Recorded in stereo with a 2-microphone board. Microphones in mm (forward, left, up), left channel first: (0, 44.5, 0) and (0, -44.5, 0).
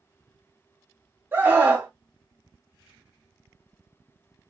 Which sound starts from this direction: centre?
A scream, at 1.3 s.